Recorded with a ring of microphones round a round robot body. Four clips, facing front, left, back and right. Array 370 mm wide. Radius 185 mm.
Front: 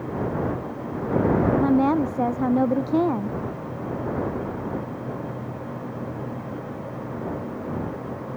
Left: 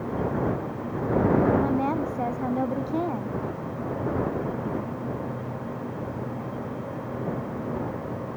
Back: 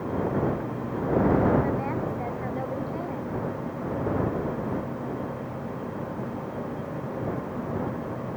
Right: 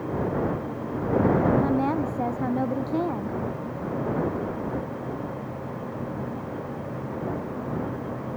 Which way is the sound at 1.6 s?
5° right.